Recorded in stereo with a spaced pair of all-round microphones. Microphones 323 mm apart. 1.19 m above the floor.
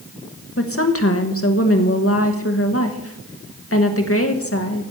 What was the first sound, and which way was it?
A woman speaking, 45° left (ahead or behind).